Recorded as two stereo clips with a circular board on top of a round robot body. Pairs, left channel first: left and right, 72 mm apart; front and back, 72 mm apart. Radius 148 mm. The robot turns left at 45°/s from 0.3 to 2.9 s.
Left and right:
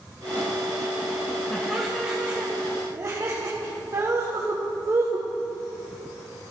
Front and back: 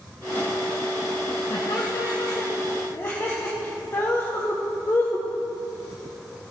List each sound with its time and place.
1.5 s laughter: 15° left, 1.5 m; by 5.3 s 50° right, 1.5 m